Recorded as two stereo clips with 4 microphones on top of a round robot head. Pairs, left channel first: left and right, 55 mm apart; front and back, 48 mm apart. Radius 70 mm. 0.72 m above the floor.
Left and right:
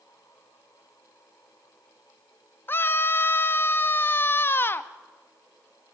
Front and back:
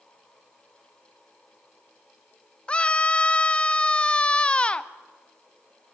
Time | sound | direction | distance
2.7 | a scream | 55° left | 1.0 m